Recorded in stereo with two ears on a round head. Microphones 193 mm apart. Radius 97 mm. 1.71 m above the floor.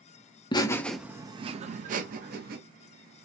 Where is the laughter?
20° left (ahead or behind), 0.5 m; by 2.6 s 45° right (ahead or behind), 1.0 m.